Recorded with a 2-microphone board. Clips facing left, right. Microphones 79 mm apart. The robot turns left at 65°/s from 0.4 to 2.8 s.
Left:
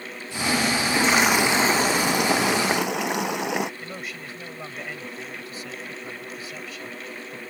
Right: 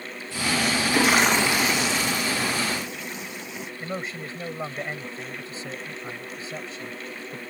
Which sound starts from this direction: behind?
A toilet flushing, at 0.8 s.